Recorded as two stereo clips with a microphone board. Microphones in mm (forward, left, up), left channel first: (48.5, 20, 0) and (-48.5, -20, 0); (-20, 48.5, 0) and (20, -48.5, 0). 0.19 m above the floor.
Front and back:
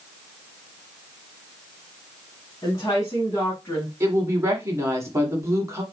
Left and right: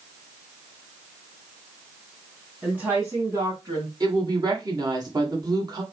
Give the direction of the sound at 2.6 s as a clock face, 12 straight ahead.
12 o'clock.